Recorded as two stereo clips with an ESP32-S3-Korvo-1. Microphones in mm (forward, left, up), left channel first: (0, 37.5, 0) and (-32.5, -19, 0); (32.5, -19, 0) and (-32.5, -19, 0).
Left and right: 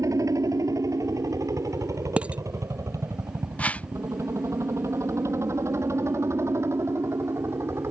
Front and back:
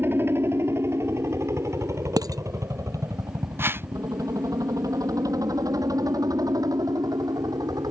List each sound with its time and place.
0.0 s a helicopter: 130° right; by 7.9 s 165° right
2.2 s dishes clattering: 170° left
3.6 s a whoosh: 130° left